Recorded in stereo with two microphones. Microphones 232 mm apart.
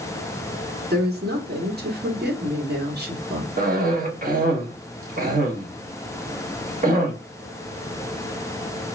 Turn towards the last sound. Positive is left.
turn(degrees=-40)  # may be behind; listen again after turning